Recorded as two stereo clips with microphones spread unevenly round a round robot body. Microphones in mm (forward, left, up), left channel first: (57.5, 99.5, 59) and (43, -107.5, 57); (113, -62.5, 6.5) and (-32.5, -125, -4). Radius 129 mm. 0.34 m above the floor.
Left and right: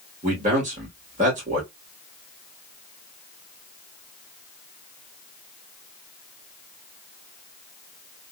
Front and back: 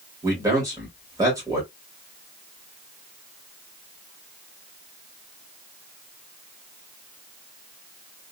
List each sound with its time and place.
0.2 s a man speaking: 105° right, 1.3 m